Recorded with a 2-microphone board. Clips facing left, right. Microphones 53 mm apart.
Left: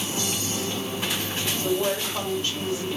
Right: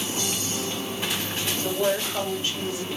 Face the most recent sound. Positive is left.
turn(degrees=-25)  # may be behind; listen again after turning